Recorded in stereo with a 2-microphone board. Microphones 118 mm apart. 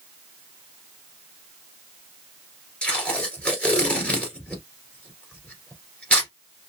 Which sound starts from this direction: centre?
Tape being pulled, at 2.8 s.